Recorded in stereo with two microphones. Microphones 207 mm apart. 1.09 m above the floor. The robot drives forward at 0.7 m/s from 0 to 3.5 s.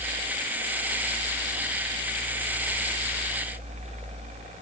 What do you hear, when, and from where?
Only background noise.